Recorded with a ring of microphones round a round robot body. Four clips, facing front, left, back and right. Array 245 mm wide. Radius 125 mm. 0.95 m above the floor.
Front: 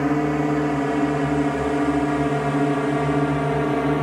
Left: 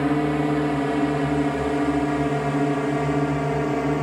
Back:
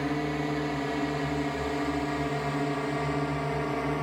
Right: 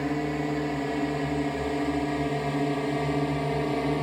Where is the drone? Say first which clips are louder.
Left 7 dB, front 9 dB; 35° left; by 4.0 s 20° left.